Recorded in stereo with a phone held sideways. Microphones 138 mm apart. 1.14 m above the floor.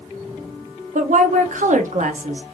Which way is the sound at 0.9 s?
65° right (ahead or behind).